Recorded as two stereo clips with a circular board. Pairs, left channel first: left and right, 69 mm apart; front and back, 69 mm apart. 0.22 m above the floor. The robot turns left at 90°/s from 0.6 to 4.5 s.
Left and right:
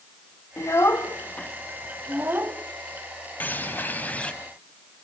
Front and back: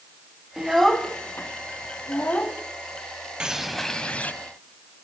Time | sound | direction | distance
0.6 | a child speaking | 105° left | 1.1 m
3.4 | a bird | 120° left | 1.0 m